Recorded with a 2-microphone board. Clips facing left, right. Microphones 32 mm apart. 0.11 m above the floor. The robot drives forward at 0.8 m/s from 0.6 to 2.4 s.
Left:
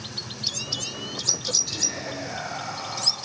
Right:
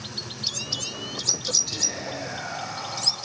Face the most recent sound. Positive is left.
turn(degrees=0)  # may be behind; listen again after turning